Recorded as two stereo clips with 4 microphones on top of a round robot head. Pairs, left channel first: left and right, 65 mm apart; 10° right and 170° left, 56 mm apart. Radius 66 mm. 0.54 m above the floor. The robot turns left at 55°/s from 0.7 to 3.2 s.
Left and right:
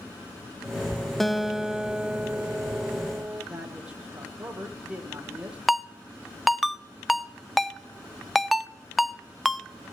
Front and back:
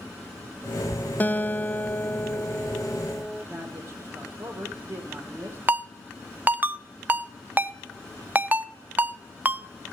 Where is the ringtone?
Straight behind, 0.5 m.